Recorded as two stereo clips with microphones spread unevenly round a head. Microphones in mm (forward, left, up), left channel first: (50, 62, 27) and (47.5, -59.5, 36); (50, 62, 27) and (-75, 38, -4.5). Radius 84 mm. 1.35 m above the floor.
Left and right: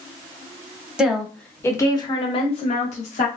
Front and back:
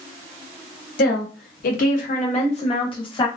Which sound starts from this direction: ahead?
A woman speaking, at 1.0 s.